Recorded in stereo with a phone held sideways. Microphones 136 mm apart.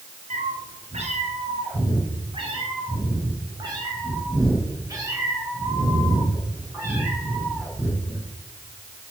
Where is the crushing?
I don't hear crushing.